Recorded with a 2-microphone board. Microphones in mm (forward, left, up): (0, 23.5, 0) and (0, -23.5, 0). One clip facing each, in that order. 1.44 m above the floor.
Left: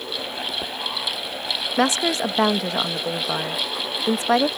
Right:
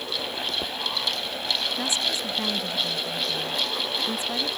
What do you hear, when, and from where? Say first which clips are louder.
1.8 s a woman speaking: left 7 dB; 75° left (ahead or behind)